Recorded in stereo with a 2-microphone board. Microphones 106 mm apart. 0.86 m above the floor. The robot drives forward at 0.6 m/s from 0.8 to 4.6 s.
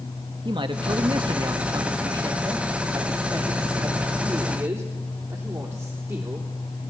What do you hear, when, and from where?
0.5 s a man speaking: 50° right (ahead or behind), 1.5 m; by 6.5 s 25° right (ahead or behind), 3 m